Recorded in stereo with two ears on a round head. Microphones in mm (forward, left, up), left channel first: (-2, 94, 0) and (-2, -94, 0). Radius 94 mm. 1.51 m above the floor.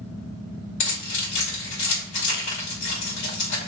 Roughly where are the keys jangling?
Left.